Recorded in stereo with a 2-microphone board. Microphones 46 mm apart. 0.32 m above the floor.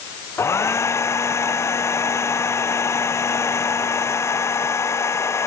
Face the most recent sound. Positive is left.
turn(degrees=80)